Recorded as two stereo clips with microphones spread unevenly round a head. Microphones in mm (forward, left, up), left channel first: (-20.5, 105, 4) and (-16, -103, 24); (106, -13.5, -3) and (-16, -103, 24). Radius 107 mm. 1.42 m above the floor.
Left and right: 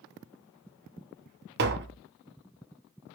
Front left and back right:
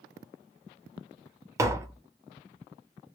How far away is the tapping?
About 0.7 m.